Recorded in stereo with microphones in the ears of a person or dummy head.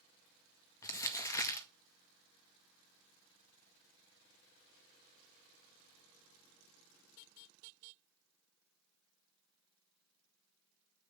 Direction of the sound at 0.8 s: 20° left (ahead or behind).